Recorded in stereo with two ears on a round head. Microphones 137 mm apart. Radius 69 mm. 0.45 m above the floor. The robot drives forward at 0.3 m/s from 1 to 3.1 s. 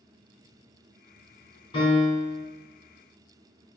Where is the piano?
35° left (ahead or behind), 2 m; by 2.4 s 30° left (ahead or behind), 2.5 m.